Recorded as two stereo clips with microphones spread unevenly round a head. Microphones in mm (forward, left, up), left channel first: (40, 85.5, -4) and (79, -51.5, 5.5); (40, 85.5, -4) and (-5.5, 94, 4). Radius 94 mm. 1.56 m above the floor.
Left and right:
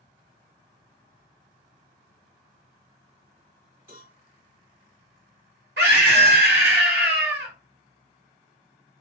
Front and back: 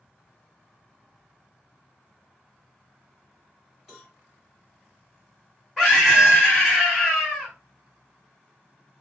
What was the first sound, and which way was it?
A cowbell, 110° right.